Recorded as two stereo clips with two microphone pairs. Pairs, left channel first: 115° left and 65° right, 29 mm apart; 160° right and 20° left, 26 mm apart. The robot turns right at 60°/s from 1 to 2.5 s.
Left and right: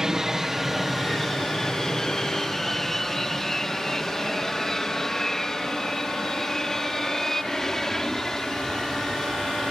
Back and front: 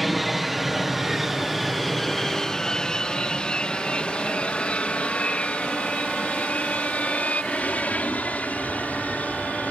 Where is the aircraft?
60° right; by 9.7 s 170° right.